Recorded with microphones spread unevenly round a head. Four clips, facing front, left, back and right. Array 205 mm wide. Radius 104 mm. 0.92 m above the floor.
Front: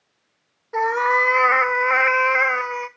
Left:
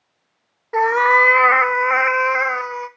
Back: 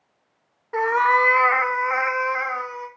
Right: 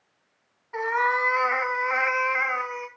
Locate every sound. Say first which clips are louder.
0.7 s a cat meowing: left 9 dB, back 1 dB; 100° left, 0.9 m; by 2.9 s 40° left, 1.5 m